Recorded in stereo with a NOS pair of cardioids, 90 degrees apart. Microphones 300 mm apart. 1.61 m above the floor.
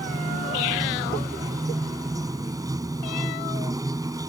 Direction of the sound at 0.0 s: 10° right.